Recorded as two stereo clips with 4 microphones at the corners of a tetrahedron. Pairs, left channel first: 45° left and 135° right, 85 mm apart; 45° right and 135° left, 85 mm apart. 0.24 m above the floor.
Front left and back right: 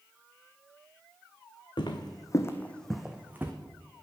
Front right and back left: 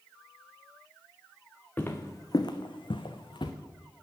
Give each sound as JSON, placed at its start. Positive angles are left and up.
{"t": 1.8, "sound": "footsteps", "azimuth_deg": 25, "distance_m": 1.1}